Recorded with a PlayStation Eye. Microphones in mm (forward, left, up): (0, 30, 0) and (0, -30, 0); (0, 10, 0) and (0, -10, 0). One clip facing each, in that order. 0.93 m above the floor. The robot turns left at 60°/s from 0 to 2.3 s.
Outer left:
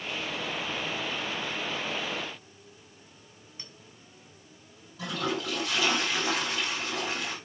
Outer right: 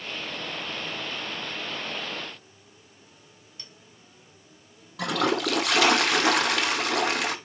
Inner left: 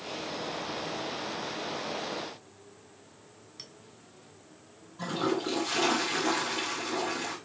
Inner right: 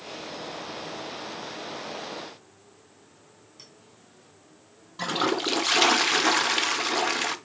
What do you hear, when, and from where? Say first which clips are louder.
3.6 s a clink: outer left 1 dB, inner left 3 dB; 20° left (ahead or behind), 2.5 m
5.0 s a toilet flushing: outer right 7 dB, inner right 4 dB; 70° right (ahead or behind), 0.6 m